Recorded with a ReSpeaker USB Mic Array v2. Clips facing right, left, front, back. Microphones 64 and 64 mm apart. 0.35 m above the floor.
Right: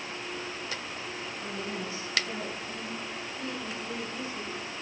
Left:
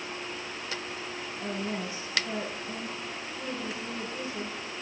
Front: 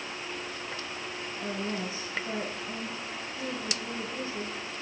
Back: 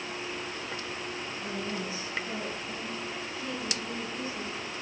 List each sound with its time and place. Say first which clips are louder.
1.4 s a woman speaking: left 4 dB, front 3 dB; 25° left, 5.5 m